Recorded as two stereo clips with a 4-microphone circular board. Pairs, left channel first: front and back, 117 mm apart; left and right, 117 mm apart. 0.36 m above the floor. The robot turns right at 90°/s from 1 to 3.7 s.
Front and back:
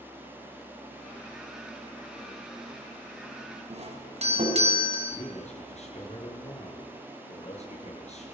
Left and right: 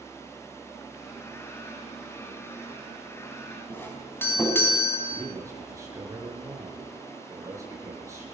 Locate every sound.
3.7 s a doorbell: 160° left, 4.5 m
5.1 s a man speaking: 25° right, 7 m